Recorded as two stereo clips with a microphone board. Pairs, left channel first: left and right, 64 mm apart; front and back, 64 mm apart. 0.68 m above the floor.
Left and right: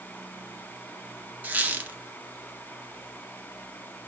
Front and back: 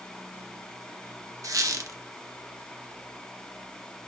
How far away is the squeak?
About 0.5 m.